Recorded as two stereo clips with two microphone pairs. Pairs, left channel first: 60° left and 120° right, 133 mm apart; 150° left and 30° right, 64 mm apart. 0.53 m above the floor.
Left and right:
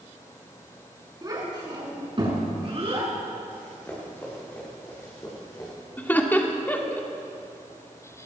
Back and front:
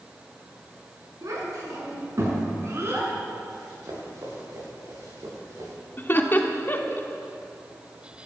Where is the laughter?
125° left, 1.4 m.